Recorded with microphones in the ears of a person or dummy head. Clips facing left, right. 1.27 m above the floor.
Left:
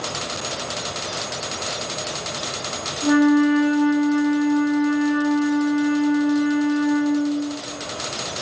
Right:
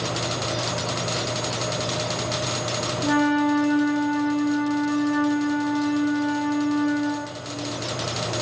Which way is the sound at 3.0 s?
10° left (ahead or behind).